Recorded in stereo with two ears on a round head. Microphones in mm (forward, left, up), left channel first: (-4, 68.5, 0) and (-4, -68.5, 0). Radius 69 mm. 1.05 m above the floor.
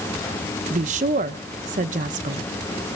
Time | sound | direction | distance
0.7 | a woman speaking | 55° right (ahead or behind) | 0.8 m